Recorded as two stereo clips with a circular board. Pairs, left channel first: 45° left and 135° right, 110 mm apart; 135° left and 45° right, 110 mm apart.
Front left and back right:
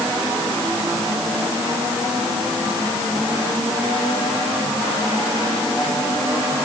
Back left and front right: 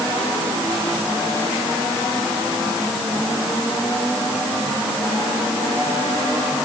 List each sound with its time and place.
Only background noise.